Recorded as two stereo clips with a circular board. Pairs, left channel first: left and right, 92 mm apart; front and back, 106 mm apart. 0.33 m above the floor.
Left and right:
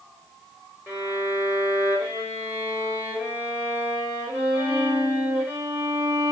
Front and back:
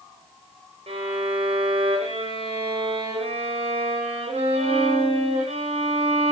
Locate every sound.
0.9 s a violin: 155° right, 10 m